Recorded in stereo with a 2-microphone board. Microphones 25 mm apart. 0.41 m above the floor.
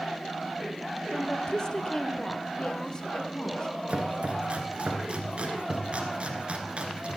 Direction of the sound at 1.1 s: 30° left (ahead or behind).